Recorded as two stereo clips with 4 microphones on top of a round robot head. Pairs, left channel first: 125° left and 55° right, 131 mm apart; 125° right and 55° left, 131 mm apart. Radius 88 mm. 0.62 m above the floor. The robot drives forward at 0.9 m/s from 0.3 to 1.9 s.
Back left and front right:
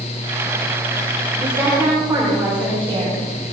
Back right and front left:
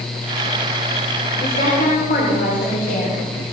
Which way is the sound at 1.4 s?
125° right.